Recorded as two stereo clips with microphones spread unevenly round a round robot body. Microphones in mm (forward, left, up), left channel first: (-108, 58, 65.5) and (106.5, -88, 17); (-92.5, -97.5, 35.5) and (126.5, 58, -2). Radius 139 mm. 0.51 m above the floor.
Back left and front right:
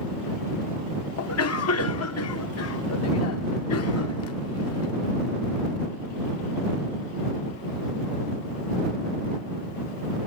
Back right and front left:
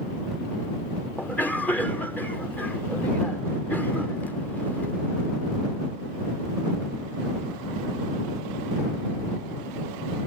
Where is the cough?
125° left.